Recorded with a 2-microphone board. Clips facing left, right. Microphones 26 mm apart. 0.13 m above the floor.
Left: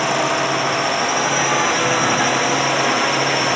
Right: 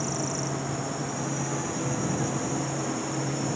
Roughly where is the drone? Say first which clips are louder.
Left 13 dB; left.